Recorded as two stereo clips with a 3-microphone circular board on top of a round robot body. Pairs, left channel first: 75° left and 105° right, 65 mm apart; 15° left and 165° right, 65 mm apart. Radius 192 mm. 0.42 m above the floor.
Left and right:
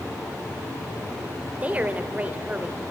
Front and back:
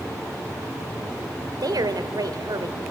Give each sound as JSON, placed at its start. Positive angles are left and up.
{"t": 1.6, "sound": "a woman speaking", "azimuth_deg": -175, "distance_m": 2.5}